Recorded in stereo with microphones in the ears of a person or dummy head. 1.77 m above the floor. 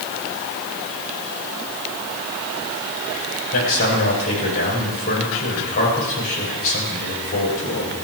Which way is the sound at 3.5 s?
50° left (ahead or behind).